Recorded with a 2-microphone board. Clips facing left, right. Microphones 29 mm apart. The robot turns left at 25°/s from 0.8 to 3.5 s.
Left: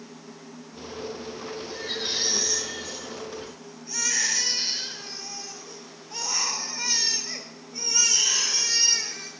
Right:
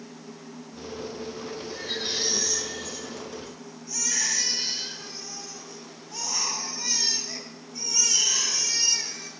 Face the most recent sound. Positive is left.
turn(degrees=135)